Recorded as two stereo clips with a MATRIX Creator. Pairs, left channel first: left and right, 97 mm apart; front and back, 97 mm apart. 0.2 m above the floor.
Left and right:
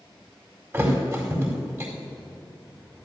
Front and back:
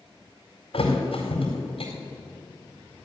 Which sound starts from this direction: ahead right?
A thud, at 0.7 s.